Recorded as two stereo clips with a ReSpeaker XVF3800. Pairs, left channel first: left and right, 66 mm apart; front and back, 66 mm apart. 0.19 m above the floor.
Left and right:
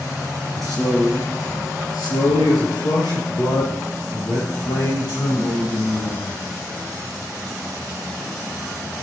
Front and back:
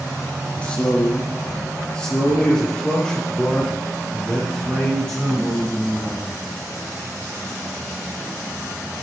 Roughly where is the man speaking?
Left.